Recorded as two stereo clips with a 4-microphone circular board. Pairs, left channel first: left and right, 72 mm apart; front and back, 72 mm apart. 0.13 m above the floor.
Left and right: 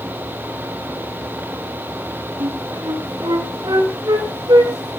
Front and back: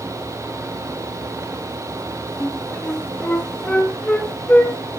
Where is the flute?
70° right, 3.5 m.